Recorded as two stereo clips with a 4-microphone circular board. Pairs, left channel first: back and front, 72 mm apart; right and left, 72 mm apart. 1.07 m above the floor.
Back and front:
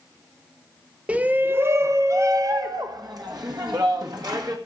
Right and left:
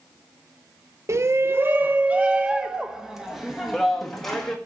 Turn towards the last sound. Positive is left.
turn(degrees=-5)